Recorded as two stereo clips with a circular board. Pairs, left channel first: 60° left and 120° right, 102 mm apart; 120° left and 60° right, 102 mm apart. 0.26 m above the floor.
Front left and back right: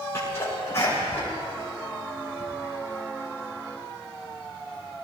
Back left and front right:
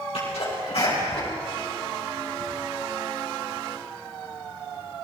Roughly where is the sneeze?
Behind left.